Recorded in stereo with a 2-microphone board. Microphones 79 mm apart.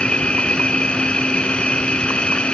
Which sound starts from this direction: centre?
An insect, at 0.0 s.